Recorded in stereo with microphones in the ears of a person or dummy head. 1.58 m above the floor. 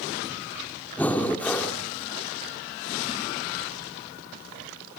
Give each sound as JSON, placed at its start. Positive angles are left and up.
{"t": 1.0, "sound": "breathing", "side_deg": 5, "distance_m": 2.0}